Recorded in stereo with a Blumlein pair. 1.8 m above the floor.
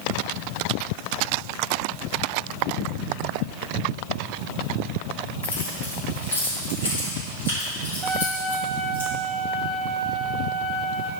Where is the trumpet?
5° right, 3 m.